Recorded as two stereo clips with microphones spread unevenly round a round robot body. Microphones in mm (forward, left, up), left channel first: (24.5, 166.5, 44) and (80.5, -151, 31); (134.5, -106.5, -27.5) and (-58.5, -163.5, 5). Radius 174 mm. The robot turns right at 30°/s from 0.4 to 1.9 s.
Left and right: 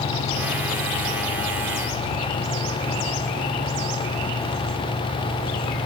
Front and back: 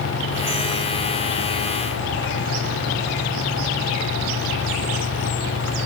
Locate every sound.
Only background noise.